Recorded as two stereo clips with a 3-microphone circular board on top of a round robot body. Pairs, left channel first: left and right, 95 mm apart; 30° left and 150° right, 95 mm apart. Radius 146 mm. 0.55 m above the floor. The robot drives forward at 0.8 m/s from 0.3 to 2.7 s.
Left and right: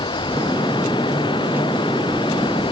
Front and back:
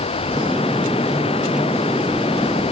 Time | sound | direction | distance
0.0 | running water | 50° left | ?